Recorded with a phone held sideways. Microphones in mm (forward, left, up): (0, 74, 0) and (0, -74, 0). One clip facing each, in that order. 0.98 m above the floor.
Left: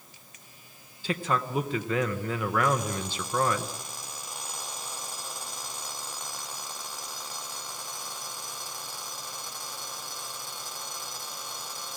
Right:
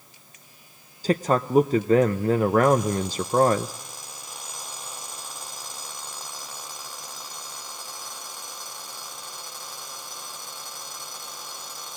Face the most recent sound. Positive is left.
turn(degrees=-40)  # may be behind; listen again after turning